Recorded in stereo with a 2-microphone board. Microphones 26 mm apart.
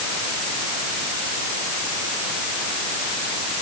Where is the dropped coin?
I don't hear a dropped coin.